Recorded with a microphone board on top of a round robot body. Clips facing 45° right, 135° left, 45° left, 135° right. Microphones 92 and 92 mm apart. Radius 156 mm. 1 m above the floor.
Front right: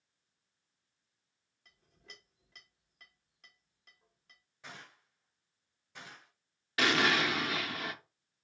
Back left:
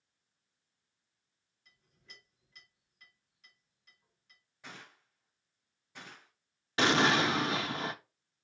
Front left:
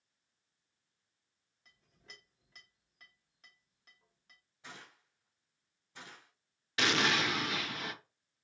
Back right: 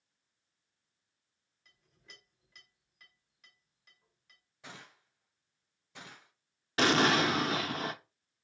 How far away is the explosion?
About 0.7 m.